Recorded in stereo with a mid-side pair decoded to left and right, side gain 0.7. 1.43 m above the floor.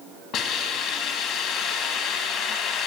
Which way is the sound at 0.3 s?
60° left.